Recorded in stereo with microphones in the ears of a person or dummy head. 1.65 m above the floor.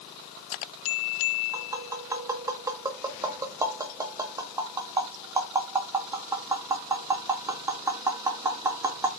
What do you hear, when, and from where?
1.5 s tapping: 20° right (ahead or behind), 1.6 m